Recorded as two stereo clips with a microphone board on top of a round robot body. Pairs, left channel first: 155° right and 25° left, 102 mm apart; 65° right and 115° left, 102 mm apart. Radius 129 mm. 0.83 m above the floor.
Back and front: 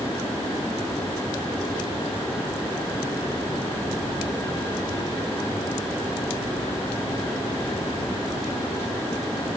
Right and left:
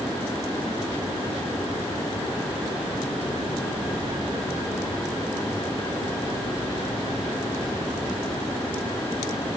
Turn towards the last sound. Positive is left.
No sound to turn to.